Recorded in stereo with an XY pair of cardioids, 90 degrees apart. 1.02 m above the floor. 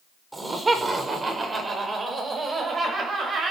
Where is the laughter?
25° right, 4.5 m; by 3.5 s 55° right, 6.5 m.